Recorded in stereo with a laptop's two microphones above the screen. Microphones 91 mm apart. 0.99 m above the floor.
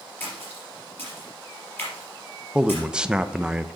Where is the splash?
20° left (ahead or behind), 4 m.